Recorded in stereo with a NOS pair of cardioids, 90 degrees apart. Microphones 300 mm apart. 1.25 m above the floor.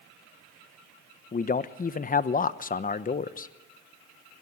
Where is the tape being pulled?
No tape being pulled in this recording.